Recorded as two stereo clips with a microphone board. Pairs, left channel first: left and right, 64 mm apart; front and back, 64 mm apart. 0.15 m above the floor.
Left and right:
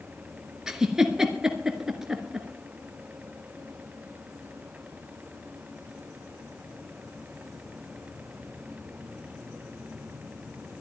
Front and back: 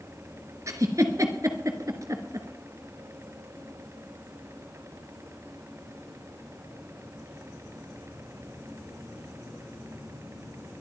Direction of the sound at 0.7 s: 170° right.